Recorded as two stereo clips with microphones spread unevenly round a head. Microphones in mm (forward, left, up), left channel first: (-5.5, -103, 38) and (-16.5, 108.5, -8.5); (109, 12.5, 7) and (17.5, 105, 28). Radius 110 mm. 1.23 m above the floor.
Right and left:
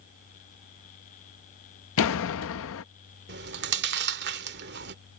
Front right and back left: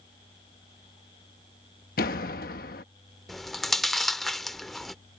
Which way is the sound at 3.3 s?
55° left.